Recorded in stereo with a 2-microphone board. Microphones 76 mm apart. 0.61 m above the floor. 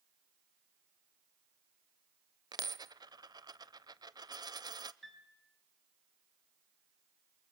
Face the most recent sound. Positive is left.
turn(degrees=5)  # may be behind; listen again after turning